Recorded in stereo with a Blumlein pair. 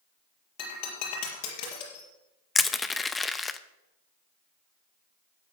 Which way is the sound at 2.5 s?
10° left.